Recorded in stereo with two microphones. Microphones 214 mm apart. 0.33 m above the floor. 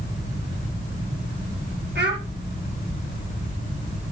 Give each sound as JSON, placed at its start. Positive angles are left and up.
{"t": 1.9, "sound": "a child speaking", "side_deg": -55, "distance_m": 4.5}